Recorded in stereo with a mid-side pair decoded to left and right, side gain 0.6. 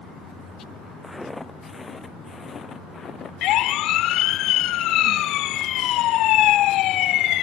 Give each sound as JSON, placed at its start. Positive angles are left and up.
{"t": 1.0, "sound": "footsteps", "azimuth_deg": 5}
{"t": 3.4, "sound": "a siren", "azimuth_deg": 65}